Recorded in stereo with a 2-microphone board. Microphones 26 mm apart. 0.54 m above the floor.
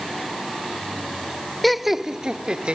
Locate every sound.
1.6 s laughter: 5° left (ahead or behind); by 2.8 s 50° right (ahead or behind)